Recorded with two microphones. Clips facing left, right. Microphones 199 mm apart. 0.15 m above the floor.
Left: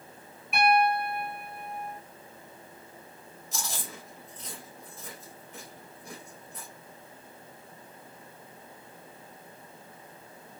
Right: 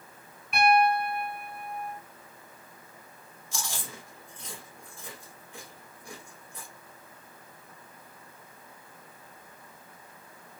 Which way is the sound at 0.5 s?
5° left (ahead or behind).